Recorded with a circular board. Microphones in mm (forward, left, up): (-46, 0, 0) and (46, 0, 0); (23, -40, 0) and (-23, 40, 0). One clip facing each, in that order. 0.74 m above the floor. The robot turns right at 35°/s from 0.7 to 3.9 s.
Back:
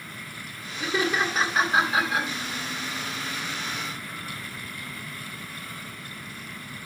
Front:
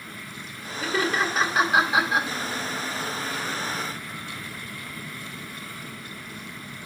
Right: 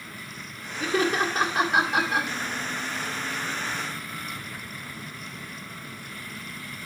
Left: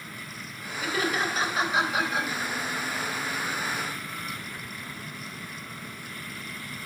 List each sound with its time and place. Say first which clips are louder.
0.8 s laughter: front 1 dB, right 4 dB; 110° right, 1.8 m; by 2.3 s 60° right, 1.8 m